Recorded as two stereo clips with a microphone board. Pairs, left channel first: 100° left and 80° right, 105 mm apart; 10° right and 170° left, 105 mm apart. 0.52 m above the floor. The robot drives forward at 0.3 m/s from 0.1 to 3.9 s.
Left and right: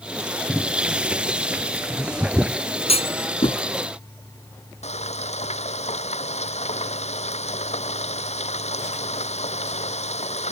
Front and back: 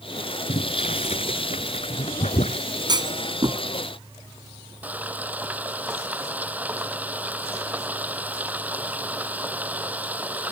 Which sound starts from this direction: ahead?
Boiling, at 0.5 s.